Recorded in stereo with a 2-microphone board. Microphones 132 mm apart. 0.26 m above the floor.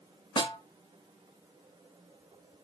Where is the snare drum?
35° left (ahead or behind), 1.0 m.